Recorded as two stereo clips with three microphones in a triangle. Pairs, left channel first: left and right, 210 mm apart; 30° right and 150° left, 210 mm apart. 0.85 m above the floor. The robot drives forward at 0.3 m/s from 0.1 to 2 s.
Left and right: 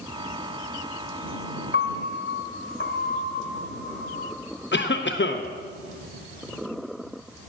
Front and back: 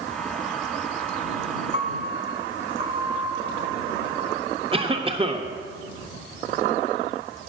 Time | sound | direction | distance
1.7 | a piano | 95° left | 0.8 m
4.7 | a cough | 95° left | 0.6 m